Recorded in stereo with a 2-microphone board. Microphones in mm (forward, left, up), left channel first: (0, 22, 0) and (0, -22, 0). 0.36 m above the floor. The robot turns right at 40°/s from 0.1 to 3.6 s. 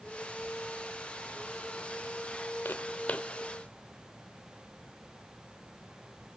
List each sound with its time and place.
2.6 s footsteps: 50° left (ahead or behind), 0.7 m; by 3.3 s 30° left (ahead or behind), 0.7 m